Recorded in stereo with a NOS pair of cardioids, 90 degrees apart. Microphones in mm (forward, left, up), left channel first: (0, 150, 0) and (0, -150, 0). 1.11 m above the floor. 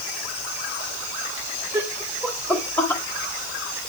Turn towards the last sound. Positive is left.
turn(degrees=10)